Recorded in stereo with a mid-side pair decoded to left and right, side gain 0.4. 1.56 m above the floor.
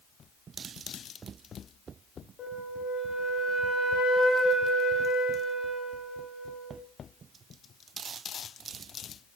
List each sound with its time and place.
2.4 s a flute: 60° left, 1.0 m